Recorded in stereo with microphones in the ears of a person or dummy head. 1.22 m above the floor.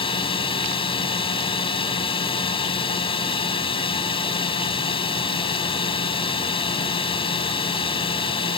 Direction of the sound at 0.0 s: 25° left (ahead or behind).